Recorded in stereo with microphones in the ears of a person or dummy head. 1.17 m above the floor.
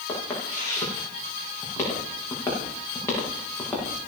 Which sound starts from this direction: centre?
Footsteps, at 0.1 s.